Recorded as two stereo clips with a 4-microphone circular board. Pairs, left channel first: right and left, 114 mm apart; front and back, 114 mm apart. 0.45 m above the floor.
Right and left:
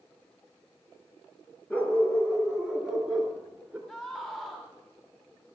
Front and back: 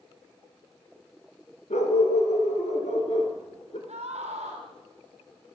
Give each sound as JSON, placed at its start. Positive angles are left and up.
{"t": 1.7, "sound": "a dog barking", "azimuth_deg": -10, "distance_m": 2.5}
{"t": 3.9, "sound": "a scream", "azimuth_deg": -165, "distance_m": 3.0}